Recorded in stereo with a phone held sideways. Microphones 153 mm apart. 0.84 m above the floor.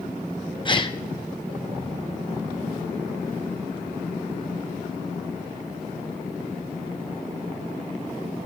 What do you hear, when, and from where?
0.7 s a gasp: 30° left (ahead or behind), 0.8 m